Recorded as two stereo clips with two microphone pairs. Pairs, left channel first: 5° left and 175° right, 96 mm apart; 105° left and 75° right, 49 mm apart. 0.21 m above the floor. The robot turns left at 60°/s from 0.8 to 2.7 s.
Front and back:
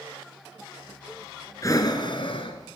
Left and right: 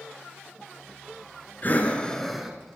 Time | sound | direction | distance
1.6 | breathing | 55° left | 1.4 m